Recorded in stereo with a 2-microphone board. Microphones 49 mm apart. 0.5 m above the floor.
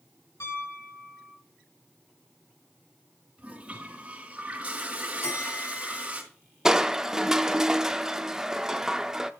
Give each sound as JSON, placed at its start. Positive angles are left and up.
{"t": 0.4, "sound": "a piano", "side_deg": 80, "distance_m": 6.0}
{"t": 3.4, "sound": "a toilet flushing", "side_deg": -30, "distance_m": 3.5}
{"t": 5.2, "sound": "a bell", "side_deg": 65, "distance_m": 5.0}
{"t": 6.7, "sound": "crushing", "side_deg": -10, "distance_m": 0.7}